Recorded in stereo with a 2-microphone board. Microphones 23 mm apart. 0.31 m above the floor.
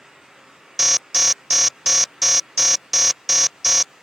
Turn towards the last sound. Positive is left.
turn(degrees=-5)  # may be behind; listen again after turning